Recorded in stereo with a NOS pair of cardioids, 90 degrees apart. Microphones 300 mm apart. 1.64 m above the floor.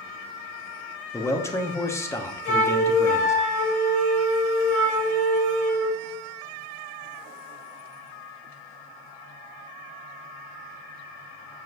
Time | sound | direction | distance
1.1 | a man speaking | 10° left | 1.1 m
2.5 | a flute | 50° left | 3.5 m